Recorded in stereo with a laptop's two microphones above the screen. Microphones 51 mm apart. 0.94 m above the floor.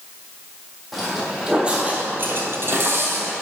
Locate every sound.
0.9 s footsteps: centre (ahead or behind), 2 m; by 3.3 s 45° right (ahead or behind), 2 m